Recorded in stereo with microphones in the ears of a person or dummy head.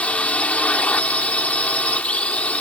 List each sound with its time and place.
0.0 s a drone: 10° left (ahead or behind)